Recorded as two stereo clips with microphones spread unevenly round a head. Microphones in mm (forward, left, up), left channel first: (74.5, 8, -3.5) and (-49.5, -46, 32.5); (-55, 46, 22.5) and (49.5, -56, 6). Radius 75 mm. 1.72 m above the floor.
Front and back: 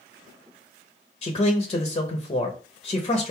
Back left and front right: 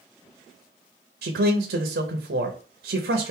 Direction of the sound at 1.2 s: 30° right.